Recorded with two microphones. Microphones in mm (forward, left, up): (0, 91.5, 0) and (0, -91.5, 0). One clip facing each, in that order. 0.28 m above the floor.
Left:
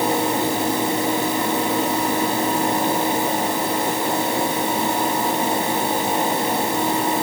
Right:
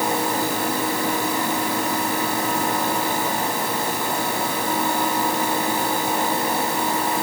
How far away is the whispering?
No whispering in this recording.